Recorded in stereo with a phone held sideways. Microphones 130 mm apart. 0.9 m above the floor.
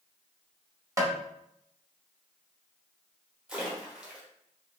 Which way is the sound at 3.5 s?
5° right (ahead or behind).